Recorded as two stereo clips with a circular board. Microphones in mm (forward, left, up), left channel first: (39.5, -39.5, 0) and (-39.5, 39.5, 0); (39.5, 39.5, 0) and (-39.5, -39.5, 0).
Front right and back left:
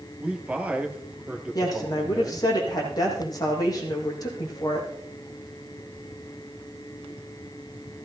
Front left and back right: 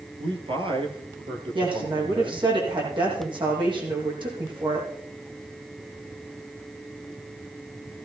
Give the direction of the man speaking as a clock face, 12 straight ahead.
5 o'clock.